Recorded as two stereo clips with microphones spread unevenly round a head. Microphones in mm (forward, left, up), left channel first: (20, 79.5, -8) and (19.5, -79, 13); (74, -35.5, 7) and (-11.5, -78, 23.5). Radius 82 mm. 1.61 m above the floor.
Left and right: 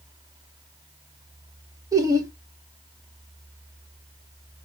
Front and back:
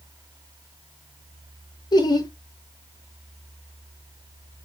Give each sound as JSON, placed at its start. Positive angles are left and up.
{"t": 1.9, "sound": "laughter", "azimuth_deg": -20, "distance_m": 1.2}